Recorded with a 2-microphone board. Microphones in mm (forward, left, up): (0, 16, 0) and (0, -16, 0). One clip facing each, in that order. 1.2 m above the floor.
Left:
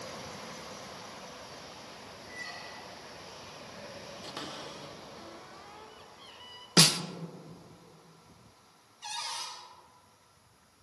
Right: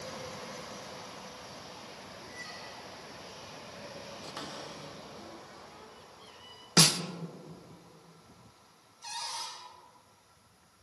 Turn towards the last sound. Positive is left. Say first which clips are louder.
# left 1 dB
turn(degrees=80)